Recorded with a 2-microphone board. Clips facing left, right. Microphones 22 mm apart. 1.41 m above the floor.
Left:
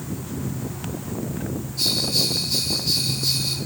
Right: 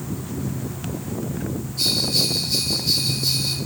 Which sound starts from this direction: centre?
A bell, at 1.8 s.